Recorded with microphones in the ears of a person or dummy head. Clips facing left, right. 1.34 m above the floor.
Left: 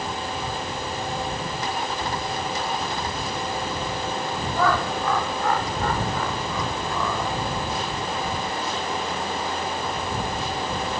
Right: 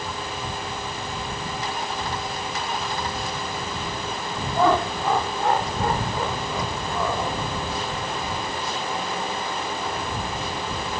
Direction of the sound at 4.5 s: 20° right (ahead or behind).